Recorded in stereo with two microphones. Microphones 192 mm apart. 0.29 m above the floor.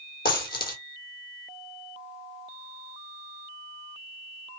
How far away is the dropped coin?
About 1.3 m.